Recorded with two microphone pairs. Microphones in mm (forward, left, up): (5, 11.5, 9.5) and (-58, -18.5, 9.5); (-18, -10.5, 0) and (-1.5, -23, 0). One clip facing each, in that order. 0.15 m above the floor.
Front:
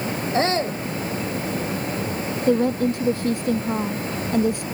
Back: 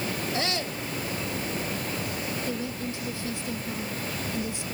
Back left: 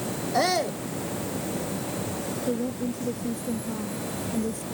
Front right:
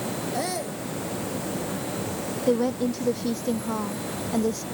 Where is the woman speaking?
5° right.